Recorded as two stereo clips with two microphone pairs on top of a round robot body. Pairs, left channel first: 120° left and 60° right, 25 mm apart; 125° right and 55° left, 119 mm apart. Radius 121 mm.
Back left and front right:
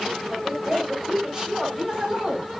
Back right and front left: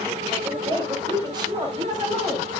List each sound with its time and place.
0.3 s a woman speaking: 10° left, 3 m; by 2.5 s straight ahead, 5 m